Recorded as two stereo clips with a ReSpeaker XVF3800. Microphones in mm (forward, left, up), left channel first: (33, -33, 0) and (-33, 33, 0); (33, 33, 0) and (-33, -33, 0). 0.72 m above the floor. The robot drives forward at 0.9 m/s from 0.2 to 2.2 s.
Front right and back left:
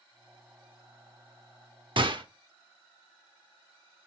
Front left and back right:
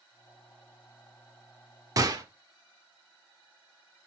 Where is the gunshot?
170° left, 0.7 m; by 2.2 s 175° left, 0.9 m.